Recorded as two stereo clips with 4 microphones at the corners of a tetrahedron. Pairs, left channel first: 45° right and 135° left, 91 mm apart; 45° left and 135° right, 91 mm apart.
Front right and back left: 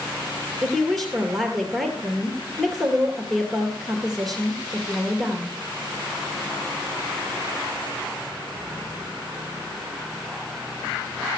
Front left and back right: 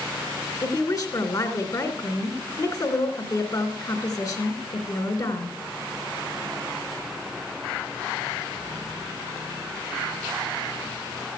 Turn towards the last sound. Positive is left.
turn(degrees=40)